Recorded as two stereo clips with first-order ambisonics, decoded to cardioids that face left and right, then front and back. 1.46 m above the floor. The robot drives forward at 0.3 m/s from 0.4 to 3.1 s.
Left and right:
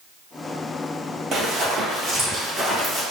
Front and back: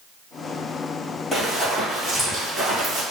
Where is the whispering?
No whispering in this recording.